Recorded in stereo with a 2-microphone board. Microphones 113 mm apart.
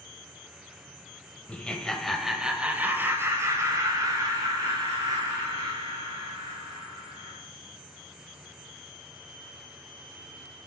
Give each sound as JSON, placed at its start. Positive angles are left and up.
{"t": 1.5, "sound": "laughter", "side_deg": 10, "distance_m": 1.1}